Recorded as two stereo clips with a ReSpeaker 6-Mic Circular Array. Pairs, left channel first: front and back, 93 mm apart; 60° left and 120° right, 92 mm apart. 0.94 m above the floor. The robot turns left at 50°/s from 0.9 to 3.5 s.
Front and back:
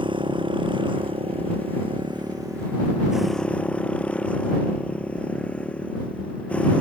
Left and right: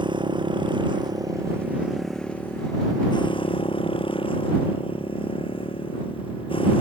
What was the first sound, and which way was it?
A motorcycle, 155° right.